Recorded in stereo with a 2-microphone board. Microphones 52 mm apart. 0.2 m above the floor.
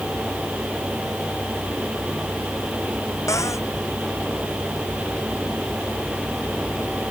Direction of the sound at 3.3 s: 70° left (ahead or behind).